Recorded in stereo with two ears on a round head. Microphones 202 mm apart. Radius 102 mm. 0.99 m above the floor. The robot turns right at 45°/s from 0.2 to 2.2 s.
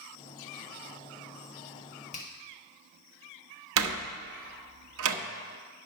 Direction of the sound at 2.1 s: 30° left (ahead or behind).